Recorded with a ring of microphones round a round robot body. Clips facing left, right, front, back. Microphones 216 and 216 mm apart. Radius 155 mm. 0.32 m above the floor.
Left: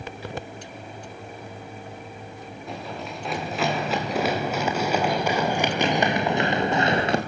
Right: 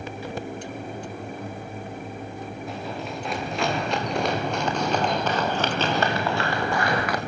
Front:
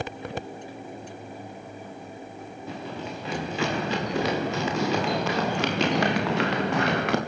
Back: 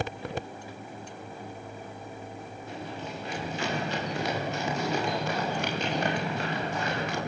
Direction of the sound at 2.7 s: Straight ahead.